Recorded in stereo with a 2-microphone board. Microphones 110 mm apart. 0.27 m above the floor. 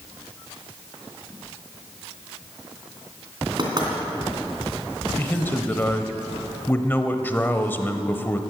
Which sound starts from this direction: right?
Knocking, at 3.6 s.